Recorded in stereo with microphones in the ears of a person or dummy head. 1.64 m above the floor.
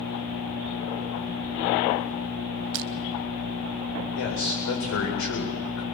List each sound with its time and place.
2.7 s crushing: 60° right (ahead or behind), 0.6 m
4.2 s a man speaking: 75° left (ahead or behind), 8 m